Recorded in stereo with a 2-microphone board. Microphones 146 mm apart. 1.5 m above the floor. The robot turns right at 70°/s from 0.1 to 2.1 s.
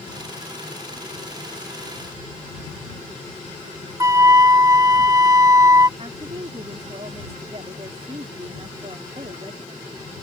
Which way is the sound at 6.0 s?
45° right (ahead or behind).